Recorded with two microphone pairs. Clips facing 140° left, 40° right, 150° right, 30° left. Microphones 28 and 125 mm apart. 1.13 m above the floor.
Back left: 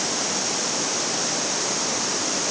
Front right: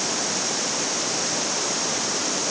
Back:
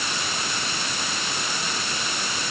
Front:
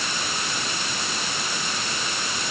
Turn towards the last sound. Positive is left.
No sound to turn to.